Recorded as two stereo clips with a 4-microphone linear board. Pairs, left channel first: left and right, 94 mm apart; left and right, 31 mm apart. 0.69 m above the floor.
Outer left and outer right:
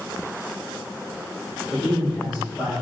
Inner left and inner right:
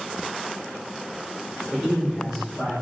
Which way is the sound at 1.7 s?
5° right (ahead or behind).